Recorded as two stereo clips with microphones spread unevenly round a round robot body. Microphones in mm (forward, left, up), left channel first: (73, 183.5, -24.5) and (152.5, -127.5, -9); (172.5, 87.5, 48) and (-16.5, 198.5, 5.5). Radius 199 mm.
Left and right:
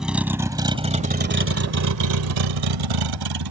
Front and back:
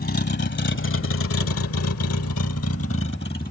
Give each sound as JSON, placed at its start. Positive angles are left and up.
{"t": 0.0, "sound": "a vehicle", "azimuth_deg": 10}